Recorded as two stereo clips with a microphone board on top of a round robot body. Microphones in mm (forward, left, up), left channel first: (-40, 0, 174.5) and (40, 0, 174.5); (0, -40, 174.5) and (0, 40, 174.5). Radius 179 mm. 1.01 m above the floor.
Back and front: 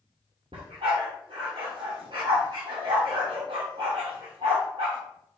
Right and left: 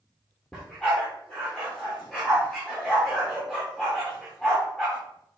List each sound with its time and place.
0.5 s a dog barking: 10° right, 0.6 m